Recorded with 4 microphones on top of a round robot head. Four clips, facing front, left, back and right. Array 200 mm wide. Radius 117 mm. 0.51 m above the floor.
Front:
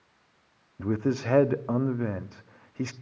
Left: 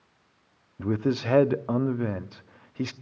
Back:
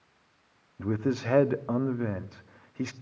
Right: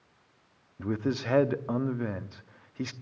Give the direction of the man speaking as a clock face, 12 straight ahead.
10 o'clock.